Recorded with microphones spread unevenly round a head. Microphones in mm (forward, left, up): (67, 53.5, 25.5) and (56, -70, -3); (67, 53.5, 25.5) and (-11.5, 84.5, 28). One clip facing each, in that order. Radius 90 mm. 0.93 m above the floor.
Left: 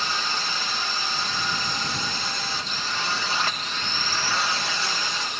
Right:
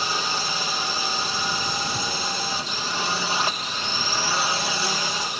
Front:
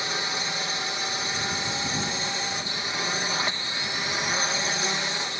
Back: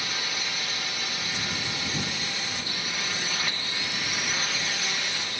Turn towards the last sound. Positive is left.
turn(degrees=-55)